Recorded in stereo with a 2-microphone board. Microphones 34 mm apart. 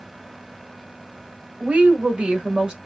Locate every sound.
1.6 s a woman speaking: 50° right (ahead or behind), 1.6 m; by 2.8 s 25° right (ahead or behind), 1.3 m